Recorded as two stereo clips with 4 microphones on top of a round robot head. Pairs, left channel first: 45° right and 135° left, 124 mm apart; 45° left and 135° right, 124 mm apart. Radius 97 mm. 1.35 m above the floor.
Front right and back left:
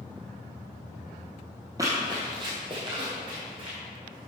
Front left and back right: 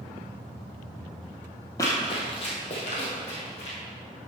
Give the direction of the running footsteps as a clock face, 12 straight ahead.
9 o'clock.